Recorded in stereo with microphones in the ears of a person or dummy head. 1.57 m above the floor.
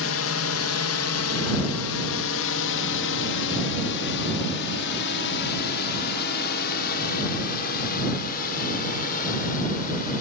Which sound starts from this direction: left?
A drone, at 0.0 s.